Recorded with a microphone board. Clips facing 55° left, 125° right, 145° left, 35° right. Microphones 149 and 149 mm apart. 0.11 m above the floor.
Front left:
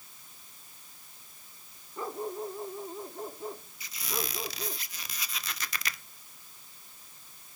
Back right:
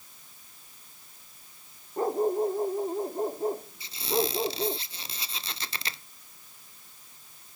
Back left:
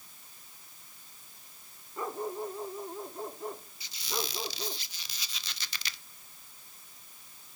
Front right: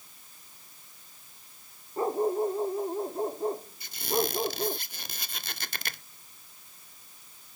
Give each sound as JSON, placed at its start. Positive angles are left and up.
{"t": 2.0, "sound": "a dog barking", "azimuth_deg": -85}
{"t": 3.8, "sound": "a squeak", "azimuth_deg": -65}